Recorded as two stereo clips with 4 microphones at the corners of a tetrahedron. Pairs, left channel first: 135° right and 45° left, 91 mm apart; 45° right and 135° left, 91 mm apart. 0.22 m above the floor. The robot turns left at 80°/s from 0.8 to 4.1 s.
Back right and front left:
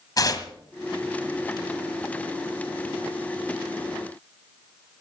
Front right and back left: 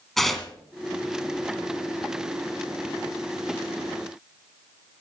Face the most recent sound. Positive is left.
turn(degrees=-35)